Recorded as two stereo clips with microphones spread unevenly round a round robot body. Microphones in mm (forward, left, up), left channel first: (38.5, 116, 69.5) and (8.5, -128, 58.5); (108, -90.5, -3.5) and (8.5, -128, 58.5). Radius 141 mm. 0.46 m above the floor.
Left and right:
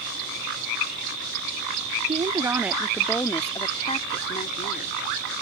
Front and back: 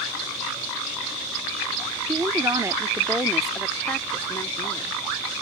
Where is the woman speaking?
95° right; by 5.4 s 35° left.